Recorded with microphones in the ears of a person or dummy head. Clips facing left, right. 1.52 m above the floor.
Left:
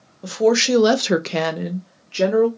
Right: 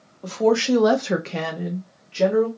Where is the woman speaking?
15° left (ahead or behind), 0.7 m; by 2.5 s 60° left (ahead or behind), 0.9 m.